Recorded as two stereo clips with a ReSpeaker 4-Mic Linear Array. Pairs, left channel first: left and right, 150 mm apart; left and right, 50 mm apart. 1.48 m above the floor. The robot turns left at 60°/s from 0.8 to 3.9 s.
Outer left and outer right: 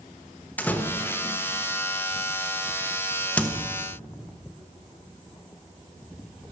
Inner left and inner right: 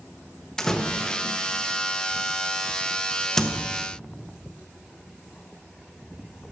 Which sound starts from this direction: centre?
A door slam, at 0.6 s.